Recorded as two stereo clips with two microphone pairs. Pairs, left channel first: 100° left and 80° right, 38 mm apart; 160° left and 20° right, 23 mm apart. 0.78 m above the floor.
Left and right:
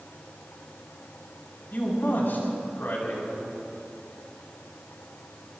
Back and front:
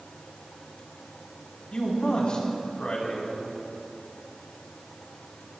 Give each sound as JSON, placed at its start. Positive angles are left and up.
{"t": 1.7, "sound": "a man speaking", "azimuth_deg": 115, "distance_m": 4.5}